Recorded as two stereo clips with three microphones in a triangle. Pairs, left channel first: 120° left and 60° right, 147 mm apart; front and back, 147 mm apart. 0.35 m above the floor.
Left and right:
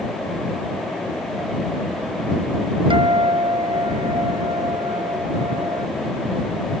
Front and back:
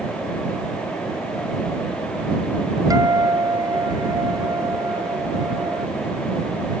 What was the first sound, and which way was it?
A guitar, 115° right.